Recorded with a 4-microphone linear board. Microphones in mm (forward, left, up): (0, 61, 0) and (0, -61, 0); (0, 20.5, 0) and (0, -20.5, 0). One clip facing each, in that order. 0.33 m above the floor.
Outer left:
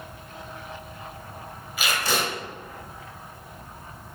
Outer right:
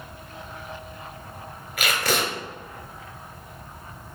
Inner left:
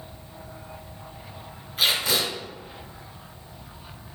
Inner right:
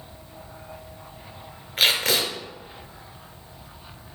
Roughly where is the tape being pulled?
Right.